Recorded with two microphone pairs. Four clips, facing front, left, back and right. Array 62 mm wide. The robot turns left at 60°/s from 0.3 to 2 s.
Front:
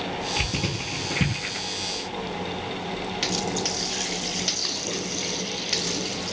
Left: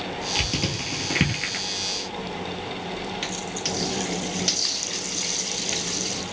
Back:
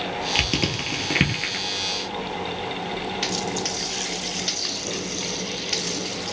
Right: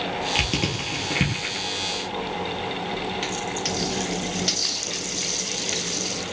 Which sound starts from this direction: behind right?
Crushing, at 0.3 s.